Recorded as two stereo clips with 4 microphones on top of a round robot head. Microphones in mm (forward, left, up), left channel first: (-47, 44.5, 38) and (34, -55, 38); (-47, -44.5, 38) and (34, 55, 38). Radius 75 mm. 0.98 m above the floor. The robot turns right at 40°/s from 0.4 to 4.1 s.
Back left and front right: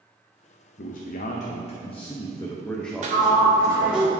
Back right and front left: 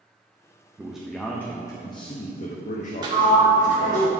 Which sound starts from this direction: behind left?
A man speaking, at 0.8 s.